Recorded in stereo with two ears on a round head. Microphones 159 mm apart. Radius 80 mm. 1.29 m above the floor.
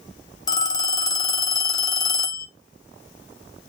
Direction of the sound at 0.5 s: 20° left (ahead or behind).